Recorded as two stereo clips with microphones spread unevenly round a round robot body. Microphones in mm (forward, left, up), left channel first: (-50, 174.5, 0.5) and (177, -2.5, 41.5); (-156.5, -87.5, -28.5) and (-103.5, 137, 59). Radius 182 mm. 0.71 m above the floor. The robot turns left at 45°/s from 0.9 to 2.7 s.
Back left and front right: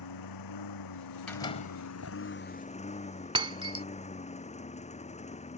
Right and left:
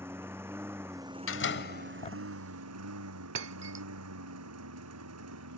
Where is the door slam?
130° right; by 2.2 s 175° right.